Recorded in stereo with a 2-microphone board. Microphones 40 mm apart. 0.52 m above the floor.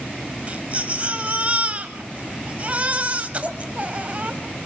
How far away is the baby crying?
About 1.7 m.